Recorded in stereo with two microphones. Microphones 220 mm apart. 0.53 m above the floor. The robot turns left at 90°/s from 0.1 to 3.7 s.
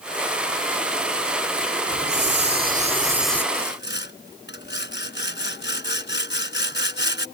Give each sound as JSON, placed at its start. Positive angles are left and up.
{"t": 1.9, "sound": "a hiss", "azimuth_deg": -55}
{"t": 3.5, "sound": "sawing", "side_deg": 35}